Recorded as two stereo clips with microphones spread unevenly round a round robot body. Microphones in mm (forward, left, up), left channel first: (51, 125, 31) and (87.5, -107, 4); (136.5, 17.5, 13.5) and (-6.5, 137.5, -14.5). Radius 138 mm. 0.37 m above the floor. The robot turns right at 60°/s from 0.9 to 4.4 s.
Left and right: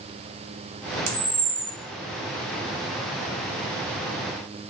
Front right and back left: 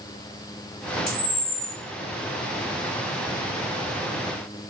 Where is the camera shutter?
110° right, 0.7 m; by 1.7 s 70° right, 0.7 m.